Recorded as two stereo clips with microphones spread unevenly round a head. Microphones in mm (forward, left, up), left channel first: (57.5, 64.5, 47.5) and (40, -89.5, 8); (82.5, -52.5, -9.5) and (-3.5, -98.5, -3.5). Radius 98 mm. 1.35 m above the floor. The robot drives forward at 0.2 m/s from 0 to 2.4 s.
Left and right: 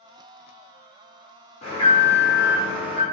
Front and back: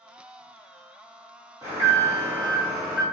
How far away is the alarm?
About 1.0 m.